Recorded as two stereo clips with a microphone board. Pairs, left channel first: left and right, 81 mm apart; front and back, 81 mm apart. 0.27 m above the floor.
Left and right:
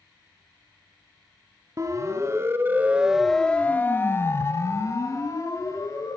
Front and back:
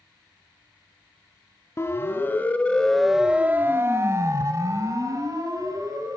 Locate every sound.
1.8 s a siren: 50° right, 2.5 m; by 6.2 s 135° left, 5 m